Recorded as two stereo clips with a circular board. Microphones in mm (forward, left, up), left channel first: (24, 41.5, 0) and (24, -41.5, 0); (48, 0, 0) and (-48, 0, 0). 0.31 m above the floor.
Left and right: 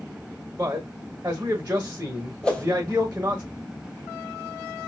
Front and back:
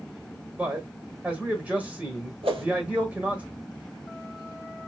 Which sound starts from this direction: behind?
A whoosh, at 2.4 s.